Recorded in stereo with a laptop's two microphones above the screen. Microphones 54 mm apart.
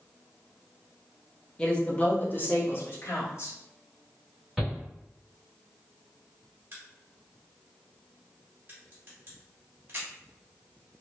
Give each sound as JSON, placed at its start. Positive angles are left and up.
{"t": 1.6, "sound": "a woman speaking", "side_deg": 15, "distance_m": 0.8}
{"t": 4.6, "sound": "a shout", "side_deg": 5, "distance_m": 1.9}
{"t": 6.7, "sound": "a crack", "side_deg": -40, "distance_m": 1.1}